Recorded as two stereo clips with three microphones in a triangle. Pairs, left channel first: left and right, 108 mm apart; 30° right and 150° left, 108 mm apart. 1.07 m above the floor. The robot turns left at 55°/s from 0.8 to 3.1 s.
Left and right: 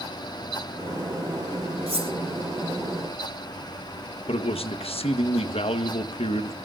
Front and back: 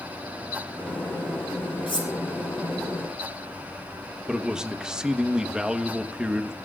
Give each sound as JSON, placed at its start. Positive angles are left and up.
{"t": 1.9, "sound": "cutlery clinking", "azimuth_deg": -70, "distance_m": 3.5}
{"t": 4.3, "sound": "a man speaking", "azimuth_deg": 65, "distance_m": 1.2}